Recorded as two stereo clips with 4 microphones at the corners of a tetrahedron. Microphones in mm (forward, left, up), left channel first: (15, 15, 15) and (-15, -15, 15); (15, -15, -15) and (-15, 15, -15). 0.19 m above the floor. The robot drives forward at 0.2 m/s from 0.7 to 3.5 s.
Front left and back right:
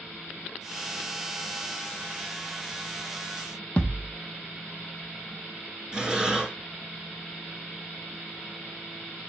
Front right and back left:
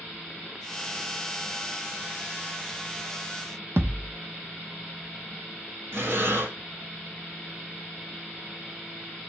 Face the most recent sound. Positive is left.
turn(degrees=155)